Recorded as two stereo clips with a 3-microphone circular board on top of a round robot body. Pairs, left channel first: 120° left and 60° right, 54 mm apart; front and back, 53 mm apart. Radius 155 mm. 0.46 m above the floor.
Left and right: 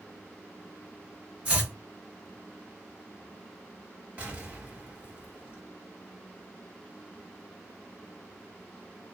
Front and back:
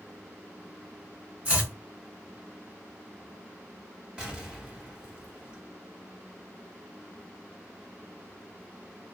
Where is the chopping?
125° right, 2.0 m.